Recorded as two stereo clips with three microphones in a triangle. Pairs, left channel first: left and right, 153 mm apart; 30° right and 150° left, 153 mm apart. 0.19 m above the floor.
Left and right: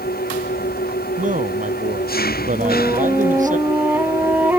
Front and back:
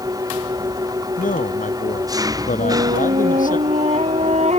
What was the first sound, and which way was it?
An engine running, 85° left.